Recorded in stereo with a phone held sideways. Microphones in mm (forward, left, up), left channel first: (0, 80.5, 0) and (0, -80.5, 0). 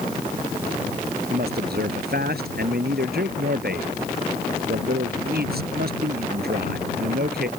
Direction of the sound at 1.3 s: 75° right (ahead or behind).